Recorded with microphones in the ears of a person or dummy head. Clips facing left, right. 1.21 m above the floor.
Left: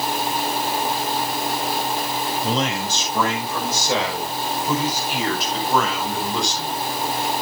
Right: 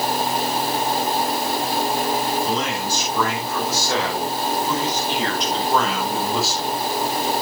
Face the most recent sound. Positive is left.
turn(degrees=-10)  # may be behind; listen again after turning